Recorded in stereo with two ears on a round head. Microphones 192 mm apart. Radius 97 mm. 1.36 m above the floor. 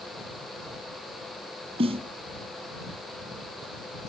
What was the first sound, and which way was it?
A snare drum, 25° right (ahead or behind).